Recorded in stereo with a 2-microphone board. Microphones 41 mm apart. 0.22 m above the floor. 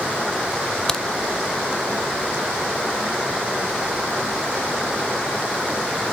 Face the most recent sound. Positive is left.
turn(degrees=15)  # may be behind; listen again after turning